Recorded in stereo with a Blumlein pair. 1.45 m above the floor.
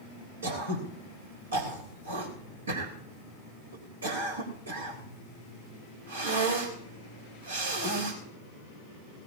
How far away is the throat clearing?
About 3 m.